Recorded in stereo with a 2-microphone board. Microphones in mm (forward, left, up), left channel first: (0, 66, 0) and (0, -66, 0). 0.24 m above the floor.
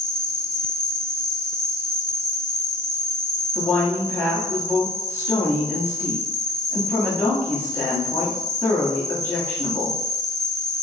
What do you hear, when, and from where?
0.0 s an insect: 5° left (ahead or behind), 0.9 m
3.5 s a woman speaking: 20° left (ahead or behind), 1.2 m